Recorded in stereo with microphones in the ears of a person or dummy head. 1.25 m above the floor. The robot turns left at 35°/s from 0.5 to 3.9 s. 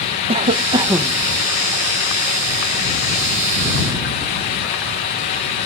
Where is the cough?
35° right (ahead or behind); by 1.2 s 10° right (ahead or behind).